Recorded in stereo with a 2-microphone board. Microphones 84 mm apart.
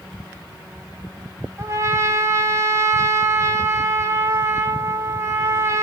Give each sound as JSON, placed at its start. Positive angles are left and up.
{"t": 1.6, "sound": "a trumpet", "side_deg": -35, "distance_m": 2.5}